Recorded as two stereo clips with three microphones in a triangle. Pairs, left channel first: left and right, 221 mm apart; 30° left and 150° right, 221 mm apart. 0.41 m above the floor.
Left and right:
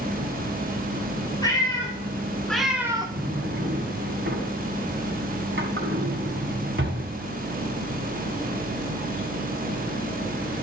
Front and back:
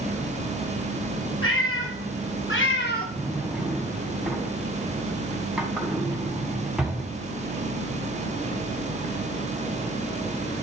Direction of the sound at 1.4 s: 20° left.